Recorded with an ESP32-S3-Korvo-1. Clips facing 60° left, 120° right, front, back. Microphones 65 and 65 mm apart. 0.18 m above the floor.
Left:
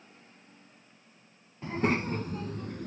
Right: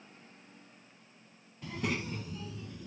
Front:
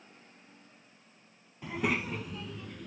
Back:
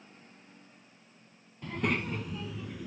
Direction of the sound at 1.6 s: 70° left.